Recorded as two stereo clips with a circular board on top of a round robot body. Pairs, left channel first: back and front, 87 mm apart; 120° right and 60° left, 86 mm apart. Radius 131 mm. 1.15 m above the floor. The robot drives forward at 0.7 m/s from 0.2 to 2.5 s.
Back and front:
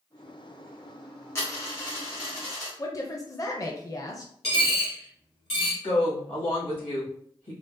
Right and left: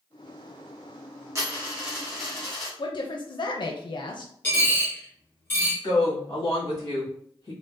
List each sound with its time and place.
1.4 s a dropped coin: 120° left, 0.7 m; by 2.7 s 155° left, 1.3 m
2.8 s a woman speaking: 135° right, 0.5 m
4.4 s a dropped coin: 170° left, 0.9 m
5.8 s a woman speaking: 170° right, 1.6 m